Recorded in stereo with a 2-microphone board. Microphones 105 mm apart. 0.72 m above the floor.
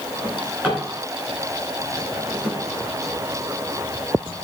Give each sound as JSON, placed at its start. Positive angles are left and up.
{"t": 0.2, "sound": "a drawer", "side_deg": -15, "distance_m": 4.5}